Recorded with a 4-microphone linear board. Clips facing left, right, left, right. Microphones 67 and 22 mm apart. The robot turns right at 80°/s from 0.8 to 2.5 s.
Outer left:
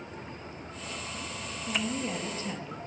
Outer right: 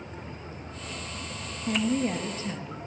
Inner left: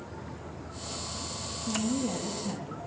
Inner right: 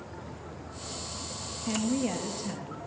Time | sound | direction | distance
1.6 | a woman speaking | 90° right | 2 m